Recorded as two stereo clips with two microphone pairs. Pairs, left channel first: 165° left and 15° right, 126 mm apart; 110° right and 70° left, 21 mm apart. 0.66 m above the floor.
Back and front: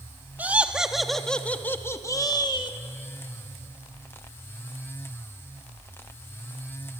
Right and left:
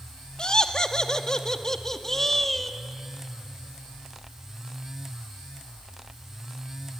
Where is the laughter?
85° right, 1.4 m; by 2.8 s 175° left, 1.4 m.